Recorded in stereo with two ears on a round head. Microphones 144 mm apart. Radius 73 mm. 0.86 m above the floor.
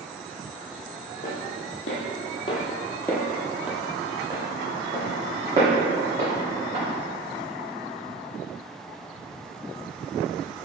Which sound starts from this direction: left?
Footsteps, at 1.2 s.